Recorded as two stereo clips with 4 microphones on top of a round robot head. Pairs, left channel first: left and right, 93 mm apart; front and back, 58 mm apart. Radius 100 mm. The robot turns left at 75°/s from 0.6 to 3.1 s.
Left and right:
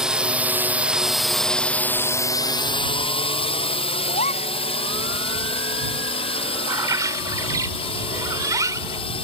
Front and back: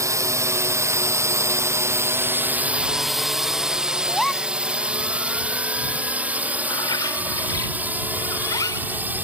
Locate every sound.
0.0 s a drone: 175° right; by 9.2 s 120° left
4.1 s a gasp: 90° left
6.7 s a bird: 35° right